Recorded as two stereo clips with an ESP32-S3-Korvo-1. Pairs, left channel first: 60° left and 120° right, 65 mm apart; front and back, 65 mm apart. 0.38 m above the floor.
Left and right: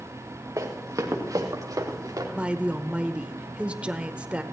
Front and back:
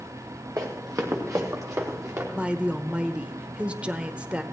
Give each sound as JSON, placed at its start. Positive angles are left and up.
{"t": 0.6, "sound": "running footsteps", "azimuth_deg": -155, "distance_m": 2.5}
{"t": 2.4, "sound": "a woman speaking", "azimuth_deg": -150, "distance_m": 0.9}